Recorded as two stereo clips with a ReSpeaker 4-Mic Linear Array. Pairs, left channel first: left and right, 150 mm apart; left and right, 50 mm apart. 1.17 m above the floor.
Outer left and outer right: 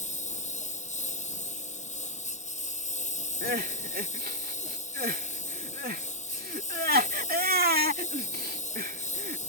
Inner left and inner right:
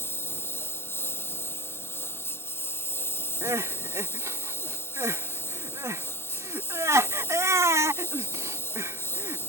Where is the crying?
80° right.